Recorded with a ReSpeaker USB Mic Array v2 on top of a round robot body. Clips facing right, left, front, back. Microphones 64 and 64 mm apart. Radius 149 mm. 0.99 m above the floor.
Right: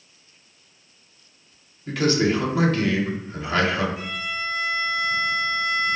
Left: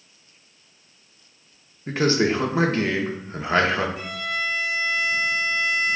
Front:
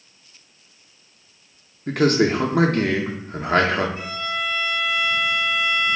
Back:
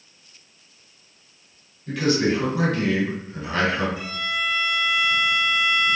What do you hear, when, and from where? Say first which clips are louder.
1.9 s a man speaking: even, front 3 dB; 35° left, 1.6 m
4.0 s a violin: left 2 dB, even; 55° left, 0.7 m